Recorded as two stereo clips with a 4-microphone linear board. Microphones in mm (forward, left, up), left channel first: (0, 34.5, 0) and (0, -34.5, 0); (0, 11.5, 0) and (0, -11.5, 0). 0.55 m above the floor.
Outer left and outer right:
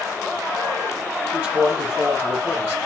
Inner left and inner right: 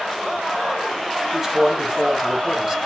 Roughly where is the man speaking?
Right.